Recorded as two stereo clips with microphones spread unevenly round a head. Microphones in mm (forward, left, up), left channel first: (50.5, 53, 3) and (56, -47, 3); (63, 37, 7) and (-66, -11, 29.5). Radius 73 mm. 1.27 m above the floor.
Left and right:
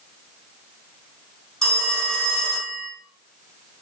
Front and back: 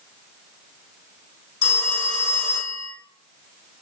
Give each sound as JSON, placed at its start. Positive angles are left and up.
{"t": 1.6, "sound": "a phone ringing", "azimuth_deg": 10, "distance_m": 1.8}